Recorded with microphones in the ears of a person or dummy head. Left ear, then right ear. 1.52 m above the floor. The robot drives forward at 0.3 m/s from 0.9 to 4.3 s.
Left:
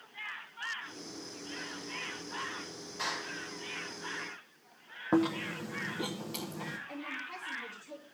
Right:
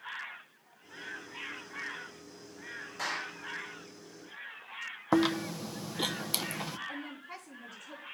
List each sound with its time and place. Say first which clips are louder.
3.0 s a clap: even; 25° right (ahead or behind), 6 m
5.1 s chewing: right 2 dB; 45° right (ahead or behind), 0.9 m
6.9 s a woman speaking: left 2 dB; 35° right (ahead or behind), 5 m